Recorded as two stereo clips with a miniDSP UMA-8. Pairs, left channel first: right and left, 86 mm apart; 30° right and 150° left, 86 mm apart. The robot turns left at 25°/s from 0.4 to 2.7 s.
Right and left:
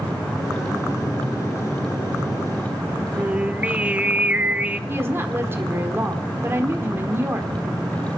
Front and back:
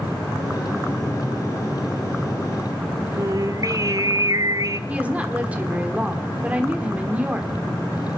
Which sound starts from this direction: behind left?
Singing, at 3.2 s.